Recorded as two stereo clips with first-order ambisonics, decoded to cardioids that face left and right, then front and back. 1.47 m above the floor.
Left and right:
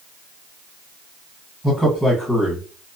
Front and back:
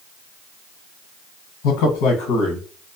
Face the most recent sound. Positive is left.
turn(degrees=-5)